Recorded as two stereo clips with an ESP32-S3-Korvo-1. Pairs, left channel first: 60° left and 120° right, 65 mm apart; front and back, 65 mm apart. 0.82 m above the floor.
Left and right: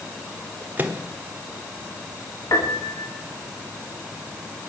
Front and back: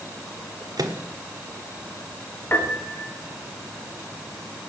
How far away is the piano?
About 2.5 m.